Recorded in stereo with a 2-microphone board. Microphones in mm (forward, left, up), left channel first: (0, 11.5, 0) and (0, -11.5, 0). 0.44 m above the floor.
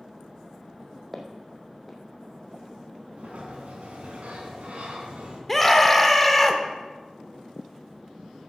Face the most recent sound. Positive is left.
turn(degrees=10)  # may be behind; listen again after turning